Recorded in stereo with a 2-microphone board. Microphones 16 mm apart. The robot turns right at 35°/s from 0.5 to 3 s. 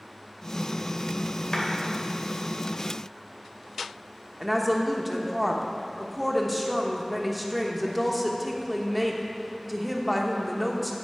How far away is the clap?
About 2 m.